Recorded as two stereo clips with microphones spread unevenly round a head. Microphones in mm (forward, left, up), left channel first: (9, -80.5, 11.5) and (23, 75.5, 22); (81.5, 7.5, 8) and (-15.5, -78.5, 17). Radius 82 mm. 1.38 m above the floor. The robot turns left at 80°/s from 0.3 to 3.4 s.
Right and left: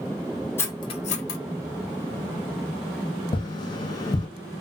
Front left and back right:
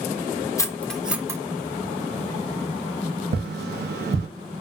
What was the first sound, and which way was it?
Cutlery clinking, 20° right.